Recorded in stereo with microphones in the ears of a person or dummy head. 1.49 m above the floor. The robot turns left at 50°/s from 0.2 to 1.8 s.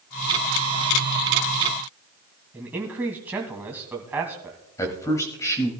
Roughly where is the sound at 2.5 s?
Centre.